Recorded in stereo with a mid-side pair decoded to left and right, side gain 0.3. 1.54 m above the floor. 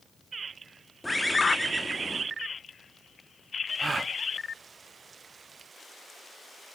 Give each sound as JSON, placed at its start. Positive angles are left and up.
{"t": 1.0, "sound": "a bird", "azimuth_deg": 10, "distance_m": 2.5}
{"t": 3.8, "sound": "a gasp", "azimuth_deg": -40, "distance_m": 0.5}